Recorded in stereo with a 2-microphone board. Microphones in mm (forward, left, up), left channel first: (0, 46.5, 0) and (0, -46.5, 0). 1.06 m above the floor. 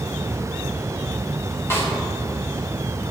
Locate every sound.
1.7 s a snare drum: 25° left (ahead or behind), 2.5 m